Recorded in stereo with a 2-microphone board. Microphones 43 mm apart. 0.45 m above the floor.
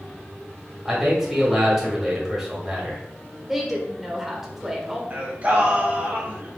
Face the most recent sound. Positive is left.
turn(degrees=-35)  # may be behind; listen again after turning